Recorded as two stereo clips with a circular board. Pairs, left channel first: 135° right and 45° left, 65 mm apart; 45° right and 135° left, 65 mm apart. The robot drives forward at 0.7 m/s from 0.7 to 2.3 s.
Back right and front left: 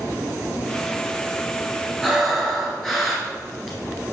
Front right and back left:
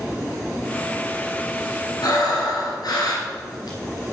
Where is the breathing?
50° right, 2.5 m; by 3.8 s 55° right, 2 m.